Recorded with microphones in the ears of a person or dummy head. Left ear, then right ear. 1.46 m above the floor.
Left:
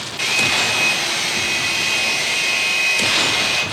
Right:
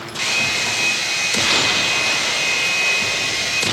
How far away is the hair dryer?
About 0.7 m.